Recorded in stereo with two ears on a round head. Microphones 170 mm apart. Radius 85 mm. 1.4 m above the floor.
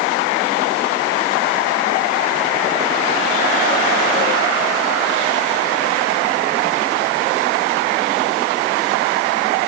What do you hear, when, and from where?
Only background noise.